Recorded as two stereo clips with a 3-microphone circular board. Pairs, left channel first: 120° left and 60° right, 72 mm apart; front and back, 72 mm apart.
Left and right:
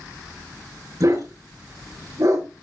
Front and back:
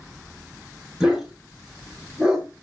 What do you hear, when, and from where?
1.0 s a dog barking: 100° right, 4 m